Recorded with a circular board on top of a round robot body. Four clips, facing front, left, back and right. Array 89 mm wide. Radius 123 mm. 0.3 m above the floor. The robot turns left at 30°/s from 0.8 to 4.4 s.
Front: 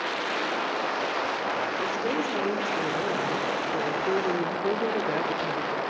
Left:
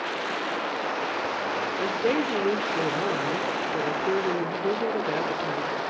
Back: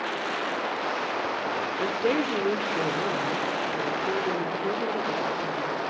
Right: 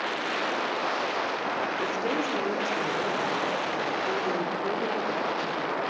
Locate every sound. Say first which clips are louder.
1.8 s a woman speaking: left 3 dB, back 2 dB; 140° left, 1.4 m; by 5.8 s 60° left, 1.4 m